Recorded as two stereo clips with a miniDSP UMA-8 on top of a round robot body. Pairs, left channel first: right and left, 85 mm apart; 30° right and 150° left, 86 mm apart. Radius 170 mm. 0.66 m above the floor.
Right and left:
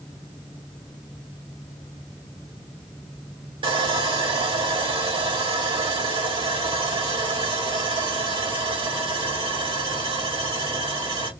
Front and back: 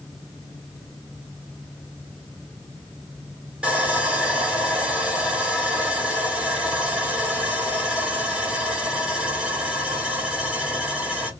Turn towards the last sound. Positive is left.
turn(degrees=70)